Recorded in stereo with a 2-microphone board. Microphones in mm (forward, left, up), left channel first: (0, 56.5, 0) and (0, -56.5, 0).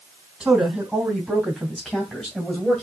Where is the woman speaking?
10° right (ahead or behind), 3.5 m; by 2.8 s 5° left (ahead or behind), 2 m.